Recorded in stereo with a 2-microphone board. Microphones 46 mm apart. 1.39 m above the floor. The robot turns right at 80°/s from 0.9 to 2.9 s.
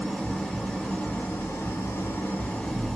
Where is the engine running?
20° left, 0.8 m; by 3.0 s straight behind, 0.8 m.